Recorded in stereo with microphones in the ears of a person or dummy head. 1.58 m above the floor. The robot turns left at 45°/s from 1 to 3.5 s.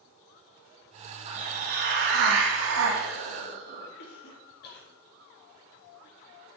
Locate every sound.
1.3 s a hiss: 35° right, 2 m; by 3.9 s 135° right, 2 m
4.0 s a cough: 60° left (ahead or behind), 2.5 m